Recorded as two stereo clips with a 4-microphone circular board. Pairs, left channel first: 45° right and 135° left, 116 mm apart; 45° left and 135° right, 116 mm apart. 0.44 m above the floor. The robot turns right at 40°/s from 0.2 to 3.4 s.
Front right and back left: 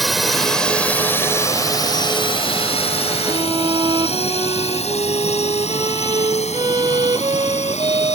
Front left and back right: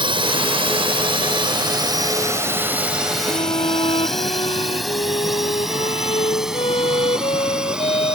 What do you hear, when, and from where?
0.0 s a drone: 135° right; by 8.2 s 50° right
3.2 s a violin: 75° left; by 8.2 s 85° left